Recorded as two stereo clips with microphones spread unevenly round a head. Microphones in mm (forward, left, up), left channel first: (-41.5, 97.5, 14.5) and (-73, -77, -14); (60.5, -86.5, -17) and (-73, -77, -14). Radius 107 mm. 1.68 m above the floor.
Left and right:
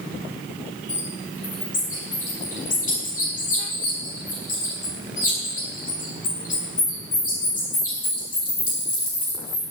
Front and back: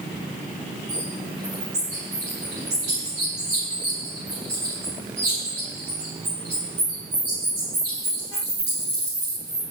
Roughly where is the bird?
Behind left.